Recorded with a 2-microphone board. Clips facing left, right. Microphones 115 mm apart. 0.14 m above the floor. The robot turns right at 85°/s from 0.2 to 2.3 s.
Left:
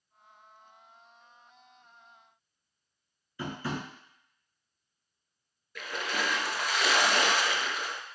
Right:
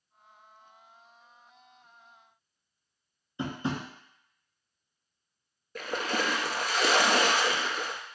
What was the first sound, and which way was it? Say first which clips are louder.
Tapping: right 3 dB; 25° right (ahead or behind).